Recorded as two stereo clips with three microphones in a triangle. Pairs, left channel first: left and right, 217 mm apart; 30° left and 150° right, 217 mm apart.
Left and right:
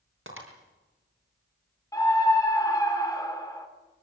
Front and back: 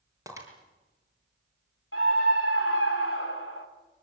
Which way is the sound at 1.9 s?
15° left.